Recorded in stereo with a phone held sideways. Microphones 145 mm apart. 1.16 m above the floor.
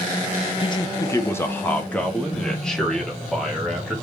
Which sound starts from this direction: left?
A man speaking, at 0.6 s.